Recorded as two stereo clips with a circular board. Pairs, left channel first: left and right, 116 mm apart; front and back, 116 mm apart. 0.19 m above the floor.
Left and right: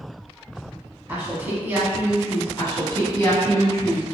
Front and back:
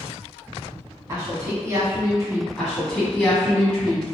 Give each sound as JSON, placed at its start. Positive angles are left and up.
{"t": 1.1, "sound": "a woman speaking", "azimuth_deg": -150, "distance_m": 1.1}
{"t": 2.6, "sound": "a woman speaking", "azimuth_deg": 75, "distance_m": 1.2}